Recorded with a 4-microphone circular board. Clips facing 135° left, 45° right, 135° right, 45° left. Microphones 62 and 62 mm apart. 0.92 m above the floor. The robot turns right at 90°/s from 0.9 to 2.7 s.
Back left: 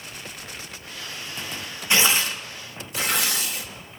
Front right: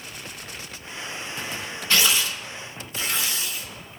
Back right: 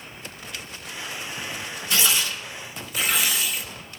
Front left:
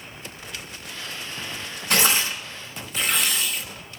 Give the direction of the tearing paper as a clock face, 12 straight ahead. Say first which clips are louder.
Back left 2 dB, front left 3 dB; 10 o'clock.